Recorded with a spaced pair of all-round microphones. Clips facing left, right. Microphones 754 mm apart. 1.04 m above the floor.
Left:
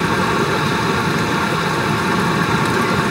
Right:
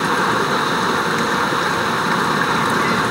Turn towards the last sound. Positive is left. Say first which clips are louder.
# left 2 dB
turn(degrees=60)  # may be behind; listen again after turning